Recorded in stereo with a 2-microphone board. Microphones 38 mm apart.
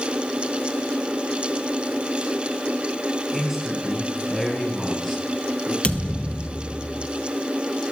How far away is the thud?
About 1.0 m.